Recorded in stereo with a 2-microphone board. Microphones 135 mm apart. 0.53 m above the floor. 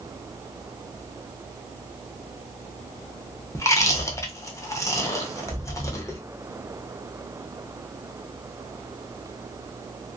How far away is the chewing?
About 0.6 m.